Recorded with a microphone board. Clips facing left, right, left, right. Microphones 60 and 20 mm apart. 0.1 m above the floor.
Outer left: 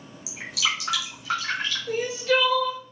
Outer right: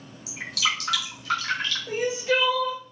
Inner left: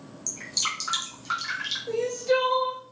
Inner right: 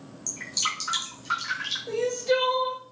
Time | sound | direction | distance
0.3 | dripping | 10° left (ahead or behind) | 1.2 m
1.9 | crying | 20° right (ahead or behind) | 0.6 m